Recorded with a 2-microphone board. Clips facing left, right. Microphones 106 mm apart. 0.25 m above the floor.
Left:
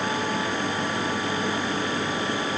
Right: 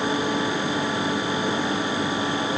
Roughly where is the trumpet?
No trumpet in this recording.